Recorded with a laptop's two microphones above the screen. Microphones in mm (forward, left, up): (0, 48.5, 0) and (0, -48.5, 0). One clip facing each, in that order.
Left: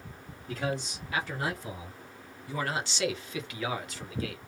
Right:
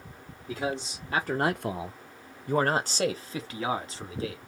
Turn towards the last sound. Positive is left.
turn(degrees=-30)  # may be behind; listen again after turning